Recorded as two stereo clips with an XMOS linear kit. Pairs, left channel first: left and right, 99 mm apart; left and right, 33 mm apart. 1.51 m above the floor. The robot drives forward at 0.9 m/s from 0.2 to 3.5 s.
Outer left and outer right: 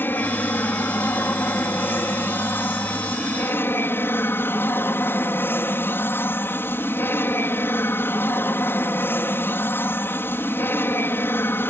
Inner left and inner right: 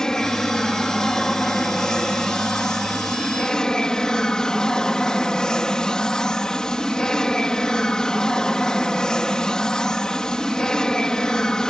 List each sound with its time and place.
0.0 s an aircraft: 20° left (ahead or behind)